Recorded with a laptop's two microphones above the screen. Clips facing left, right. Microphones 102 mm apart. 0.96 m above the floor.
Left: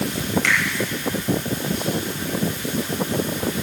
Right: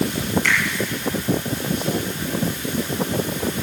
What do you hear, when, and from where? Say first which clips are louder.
0.4 s a finger snap: left 1 dB; 80° left, 3.5 m